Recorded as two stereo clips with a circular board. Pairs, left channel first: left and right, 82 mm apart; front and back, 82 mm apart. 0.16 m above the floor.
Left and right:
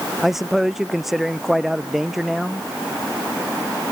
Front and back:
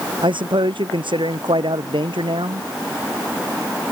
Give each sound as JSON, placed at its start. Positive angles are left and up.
{"t": 0.2, "sound": "a man speaking", "azimuth_deg": 180}